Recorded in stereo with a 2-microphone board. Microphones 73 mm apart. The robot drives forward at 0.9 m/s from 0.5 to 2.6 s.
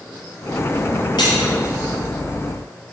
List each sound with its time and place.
1.2 s cutlery clinking: 75° left (ahead or behind), 3 m